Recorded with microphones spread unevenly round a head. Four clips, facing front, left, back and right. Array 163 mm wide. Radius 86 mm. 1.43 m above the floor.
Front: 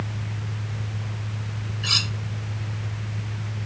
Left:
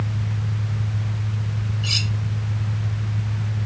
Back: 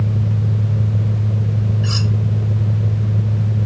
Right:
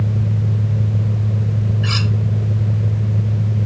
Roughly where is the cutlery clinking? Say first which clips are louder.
Right 7 dB, back 9 dB; ahead right.